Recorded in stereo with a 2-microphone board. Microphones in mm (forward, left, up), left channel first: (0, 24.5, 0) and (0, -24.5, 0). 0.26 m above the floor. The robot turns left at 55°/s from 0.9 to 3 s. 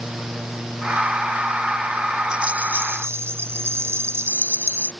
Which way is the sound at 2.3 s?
20° right.